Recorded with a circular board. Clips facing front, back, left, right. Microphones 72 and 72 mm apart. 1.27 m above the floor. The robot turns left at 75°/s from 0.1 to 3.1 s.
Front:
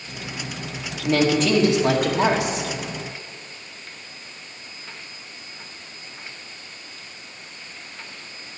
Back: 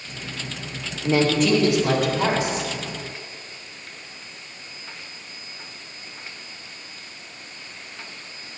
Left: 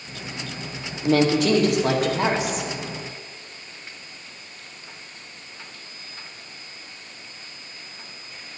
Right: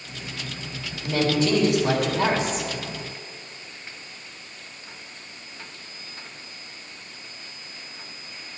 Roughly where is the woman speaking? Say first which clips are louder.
Even, left 4 dB; behind left.